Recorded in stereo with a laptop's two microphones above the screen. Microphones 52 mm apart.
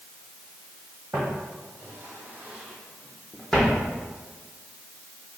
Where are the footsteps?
60° right (ahead or behind), 1.7 m; by 3.8 s 15° left (ahead or behind), 1.8 m.